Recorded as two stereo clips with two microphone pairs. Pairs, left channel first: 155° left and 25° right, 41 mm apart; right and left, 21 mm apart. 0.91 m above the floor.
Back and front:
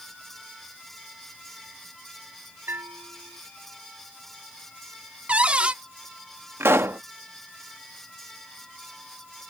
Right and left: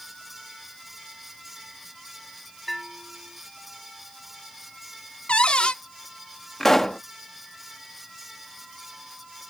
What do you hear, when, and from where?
2.7 s a bell: 5° right
5.3 s a cupboard door: 85° right
6.6 s a pop: 25° right